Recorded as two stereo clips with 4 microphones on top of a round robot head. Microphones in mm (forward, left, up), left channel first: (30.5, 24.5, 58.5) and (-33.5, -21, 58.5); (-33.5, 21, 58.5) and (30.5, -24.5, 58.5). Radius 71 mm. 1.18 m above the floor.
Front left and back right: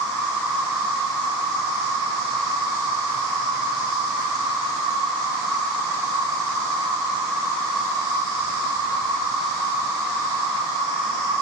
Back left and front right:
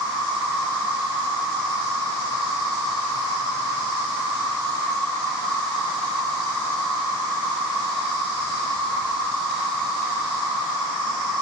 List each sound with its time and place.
0.0 s an insect: 170° left, 1.7 m